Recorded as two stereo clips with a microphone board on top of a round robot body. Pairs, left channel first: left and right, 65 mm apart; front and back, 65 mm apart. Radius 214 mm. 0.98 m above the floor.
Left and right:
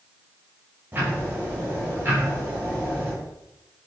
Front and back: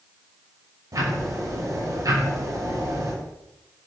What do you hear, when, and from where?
0.9 s ticking: 150° right, 6.5 m